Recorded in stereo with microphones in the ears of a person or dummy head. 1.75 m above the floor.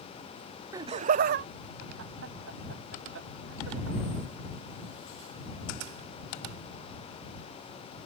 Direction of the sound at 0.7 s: 25° right (ahead or behind).